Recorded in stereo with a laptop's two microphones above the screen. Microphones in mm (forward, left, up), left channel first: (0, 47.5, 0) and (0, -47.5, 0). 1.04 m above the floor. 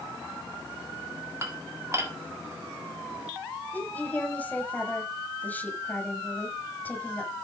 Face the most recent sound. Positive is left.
turn(degrees=15)  # may be behind; listen again after turning